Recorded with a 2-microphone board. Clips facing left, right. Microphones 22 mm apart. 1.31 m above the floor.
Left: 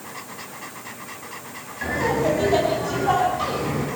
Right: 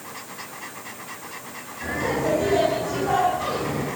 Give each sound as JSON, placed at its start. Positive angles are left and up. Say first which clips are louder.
{"t": 1.8, "sound": "laughter", "louder": "left 3 dB", "side_deg": 40, "distance_m": 9.0}